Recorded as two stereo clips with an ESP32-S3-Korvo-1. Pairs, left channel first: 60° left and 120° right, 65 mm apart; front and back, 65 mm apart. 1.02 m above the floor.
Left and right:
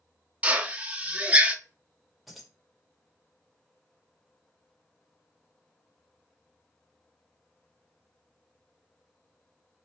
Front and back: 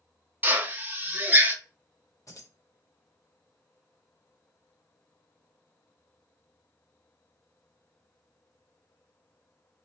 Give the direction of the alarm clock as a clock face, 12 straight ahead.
No alarm clock in this recording.